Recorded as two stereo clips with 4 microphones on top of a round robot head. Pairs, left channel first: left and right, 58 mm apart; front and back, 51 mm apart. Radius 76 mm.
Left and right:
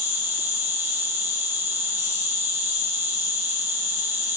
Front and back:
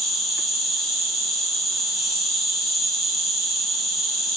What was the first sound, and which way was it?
An insect, 85° right.